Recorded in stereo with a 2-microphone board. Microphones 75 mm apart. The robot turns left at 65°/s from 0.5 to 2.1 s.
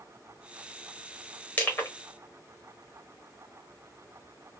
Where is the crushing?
15° left (ahead or behind), 1.6 m; by 1.9 s 30° left (ahead or behind), 1.6 m.